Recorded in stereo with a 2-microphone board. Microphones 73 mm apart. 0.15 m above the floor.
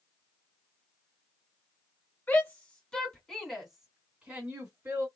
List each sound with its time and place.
2.3 s a shout: 25° left (ahead or behind), 1.8 m; by 5.1 s 30° right (ahead or behind), 1.9 m